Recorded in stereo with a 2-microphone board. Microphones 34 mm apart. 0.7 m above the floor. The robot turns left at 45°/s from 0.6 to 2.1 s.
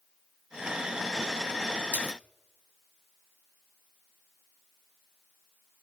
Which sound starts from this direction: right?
A splash, at 1.9 s.